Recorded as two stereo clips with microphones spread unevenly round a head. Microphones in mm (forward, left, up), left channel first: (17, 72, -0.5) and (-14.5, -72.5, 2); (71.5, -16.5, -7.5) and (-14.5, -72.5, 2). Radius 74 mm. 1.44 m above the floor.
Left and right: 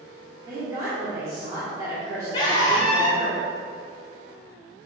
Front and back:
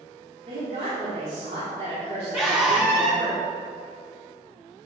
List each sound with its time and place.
0.5 s a woman speaking: 170° right, 3 m
2.3 s a scream: 140° left, 3 m